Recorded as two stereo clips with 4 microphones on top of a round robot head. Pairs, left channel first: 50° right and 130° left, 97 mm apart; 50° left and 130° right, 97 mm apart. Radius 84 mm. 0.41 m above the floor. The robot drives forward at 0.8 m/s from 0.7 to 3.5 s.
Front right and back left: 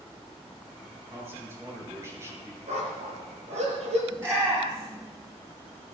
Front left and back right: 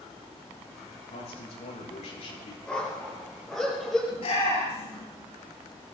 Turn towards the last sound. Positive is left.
turn(degrees=70)